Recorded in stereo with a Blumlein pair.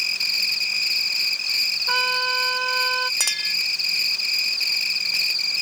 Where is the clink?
Straight ahead.